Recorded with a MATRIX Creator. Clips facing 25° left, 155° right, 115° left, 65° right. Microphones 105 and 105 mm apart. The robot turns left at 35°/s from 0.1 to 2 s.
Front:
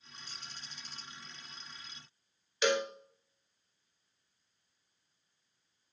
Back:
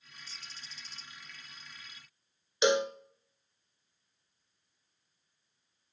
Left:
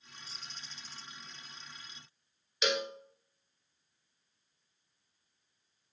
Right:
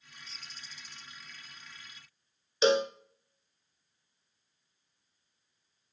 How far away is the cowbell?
About 0.6 m.